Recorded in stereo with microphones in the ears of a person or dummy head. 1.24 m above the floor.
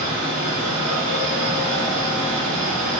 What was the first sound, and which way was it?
A fan, 40° right (ahead or behind).